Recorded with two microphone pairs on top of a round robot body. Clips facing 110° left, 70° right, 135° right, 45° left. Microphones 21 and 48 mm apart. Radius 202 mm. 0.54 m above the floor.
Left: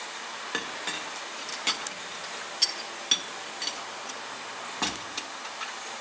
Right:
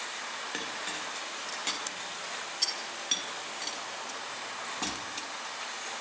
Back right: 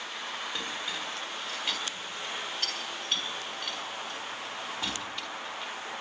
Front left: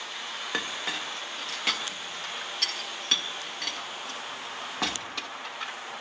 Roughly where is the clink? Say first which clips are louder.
Left 6 dB, front left 3 dB; ahead left.